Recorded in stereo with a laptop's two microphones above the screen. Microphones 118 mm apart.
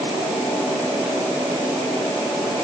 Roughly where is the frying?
No frying in this recording.